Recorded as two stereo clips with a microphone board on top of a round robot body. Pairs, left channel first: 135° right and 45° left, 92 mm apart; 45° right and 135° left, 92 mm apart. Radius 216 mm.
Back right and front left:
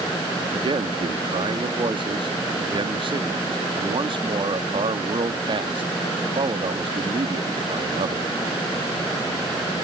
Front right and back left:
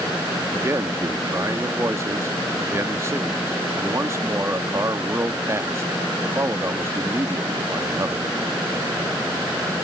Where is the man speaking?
75° left.